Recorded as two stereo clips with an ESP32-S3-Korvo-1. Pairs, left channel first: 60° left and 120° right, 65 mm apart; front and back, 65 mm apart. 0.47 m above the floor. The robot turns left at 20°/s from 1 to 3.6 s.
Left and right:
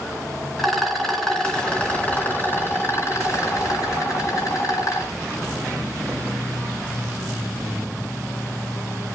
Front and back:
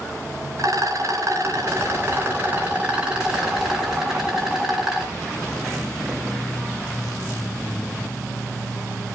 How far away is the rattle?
About 3.5 m.